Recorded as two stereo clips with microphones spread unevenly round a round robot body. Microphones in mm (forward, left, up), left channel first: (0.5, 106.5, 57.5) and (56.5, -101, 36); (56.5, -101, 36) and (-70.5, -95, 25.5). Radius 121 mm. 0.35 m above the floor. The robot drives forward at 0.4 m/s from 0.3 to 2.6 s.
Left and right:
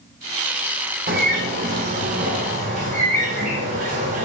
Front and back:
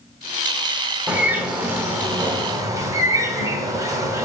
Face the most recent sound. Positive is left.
turn(degrees=-125)